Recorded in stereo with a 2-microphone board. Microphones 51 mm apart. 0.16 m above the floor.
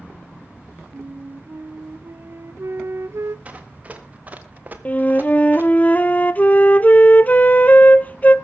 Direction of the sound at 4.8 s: 30° left (ahead or behind).